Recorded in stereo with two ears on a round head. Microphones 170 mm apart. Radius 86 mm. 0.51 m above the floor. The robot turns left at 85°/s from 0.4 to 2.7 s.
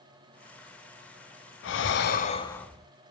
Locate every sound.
1.6 s breathing: 95° left, 0.8 m; by 2.9 s straight ahead, 0.8 m